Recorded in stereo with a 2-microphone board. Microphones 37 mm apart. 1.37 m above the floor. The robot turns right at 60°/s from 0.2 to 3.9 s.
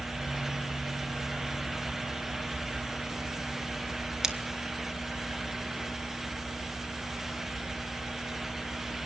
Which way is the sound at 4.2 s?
20° right (ahead or behind).